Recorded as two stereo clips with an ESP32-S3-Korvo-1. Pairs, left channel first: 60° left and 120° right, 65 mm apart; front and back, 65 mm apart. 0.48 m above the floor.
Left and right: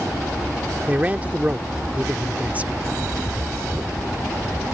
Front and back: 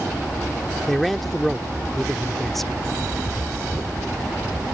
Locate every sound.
0.9 s a man speaking: 85° right